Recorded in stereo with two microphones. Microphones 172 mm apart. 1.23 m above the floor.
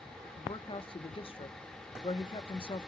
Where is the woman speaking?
30° left (ahead or behind), 0.8 m.